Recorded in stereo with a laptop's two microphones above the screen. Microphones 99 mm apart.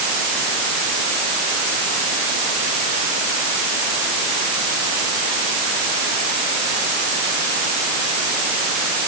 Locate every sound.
Only background noise.